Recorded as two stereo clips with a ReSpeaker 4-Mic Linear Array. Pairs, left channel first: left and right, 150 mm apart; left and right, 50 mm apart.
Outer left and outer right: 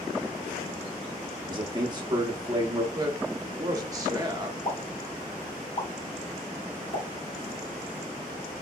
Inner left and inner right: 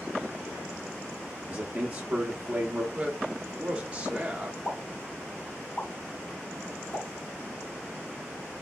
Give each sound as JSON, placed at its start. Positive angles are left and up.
{"t": 1.5, "sound": "a man speaking", "side_deg": -30, "distance_m": 0.7}
{"t": 2.9, "sound": "a man speaking", "side_deg": -25, "distance_m": 0.9}
{"t": 4.7, "sound": "a pop", "side_deg": 40, "distance_m": 1.2}